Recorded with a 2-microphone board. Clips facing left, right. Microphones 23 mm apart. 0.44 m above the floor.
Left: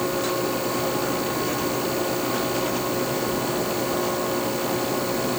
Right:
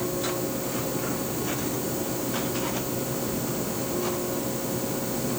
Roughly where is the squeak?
No squeak in this recording.